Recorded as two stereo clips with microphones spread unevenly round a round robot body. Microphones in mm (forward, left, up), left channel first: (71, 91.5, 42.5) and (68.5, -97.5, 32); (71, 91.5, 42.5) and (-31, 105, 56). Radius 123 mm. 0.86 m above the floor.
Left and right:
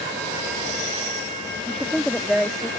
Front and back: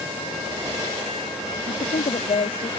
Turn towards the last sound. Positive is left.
turn(degrees=0)